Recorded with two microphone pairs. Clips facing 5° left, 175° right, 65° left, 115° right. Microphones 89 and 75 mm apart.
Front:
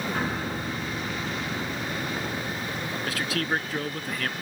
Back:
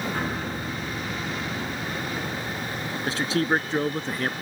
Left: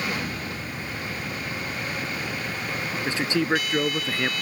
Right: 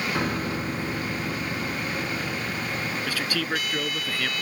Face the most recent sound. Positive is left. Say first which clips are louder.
# back 5 dB, left 8 dB
turn(degrees=125)